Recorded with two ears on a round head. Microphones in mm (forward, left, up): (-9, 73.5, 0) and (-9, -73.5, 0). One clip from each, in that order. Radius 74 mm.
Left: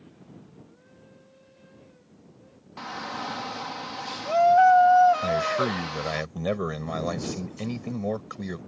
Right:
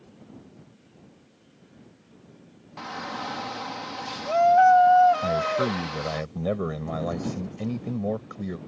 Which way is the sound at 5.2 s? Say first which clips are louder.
Even; 45° left (ahead or behind).